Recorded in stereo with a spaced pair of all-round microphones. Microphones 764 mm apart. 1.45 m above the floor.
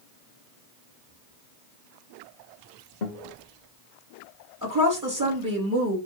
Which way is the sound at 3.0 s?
70° left (ahead or behind).